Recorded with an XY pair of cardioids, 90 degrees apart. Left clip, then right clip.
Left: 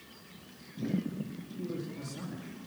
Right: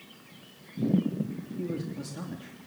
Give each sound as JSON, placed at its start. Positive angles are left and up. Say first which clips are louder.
{"t": 1.6, "sound": "a man speaking", "louder": "right 3 dB", "azimuth_deg": -45, "distance_m": 3.0}